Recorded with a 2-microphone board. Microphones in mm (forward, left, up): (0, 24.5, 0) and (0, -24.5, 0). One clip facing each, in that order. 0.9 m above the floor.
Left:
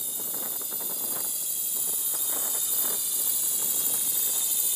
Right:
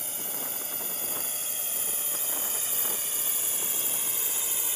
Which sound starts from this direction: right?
A drone, at 0.0 s.